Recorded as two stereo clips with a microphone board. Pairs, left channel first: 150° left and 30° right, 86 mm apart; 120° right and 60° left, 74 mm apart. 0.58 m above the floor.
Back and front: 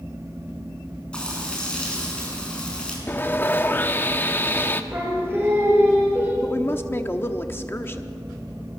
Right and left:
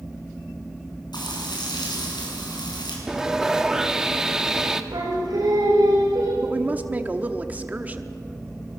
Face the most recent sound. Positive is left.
turn(degrees=110)